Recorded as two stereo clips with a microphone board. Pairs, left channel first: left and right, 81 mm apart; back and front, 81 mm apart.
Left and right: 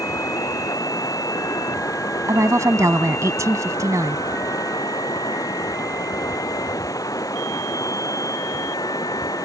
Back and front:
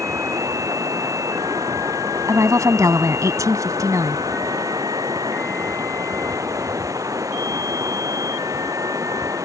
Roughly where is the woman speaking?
Ahead right.